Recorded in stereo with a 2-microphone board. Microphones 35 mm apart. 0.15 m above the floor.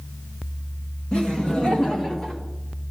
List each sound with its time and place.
1.1 s laughter: 30° left (ahead or behind), 1.3 m; by 2.4 s 25° left (ahead or behind), 1.5 m